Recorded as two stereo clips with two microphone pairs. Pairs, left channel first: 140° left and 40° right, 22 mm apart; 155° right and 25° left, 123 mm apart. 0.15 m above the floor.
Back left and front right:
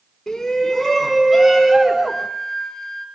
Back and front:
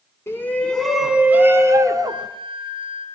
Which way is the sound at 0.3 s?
175° right.